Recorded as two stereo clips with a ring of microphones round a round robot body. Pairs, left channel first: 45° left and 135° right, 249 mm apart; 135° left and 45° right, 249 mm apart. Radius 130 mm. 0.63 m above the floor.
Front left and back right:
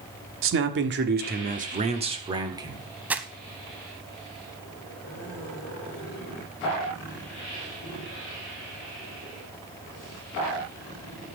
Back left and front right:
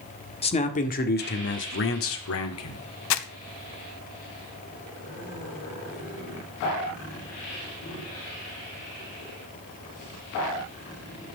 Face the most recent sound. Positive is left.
turn(degrees=140)